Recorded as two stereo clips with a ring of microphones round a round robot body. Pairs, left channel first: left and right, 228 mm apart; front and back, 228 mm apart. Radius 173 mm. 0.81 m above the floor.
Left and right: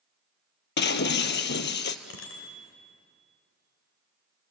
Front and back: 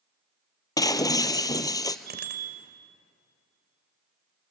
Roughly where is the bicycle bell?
Behind left.